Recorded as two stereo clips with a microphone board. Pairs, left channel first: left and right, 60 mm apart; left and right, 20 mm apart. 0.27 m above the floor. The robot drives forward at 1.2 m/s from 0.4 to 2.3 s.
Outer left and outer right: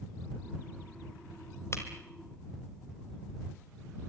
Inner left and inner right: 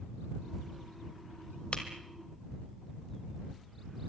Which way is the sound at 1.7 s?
50° left (ahead or behind).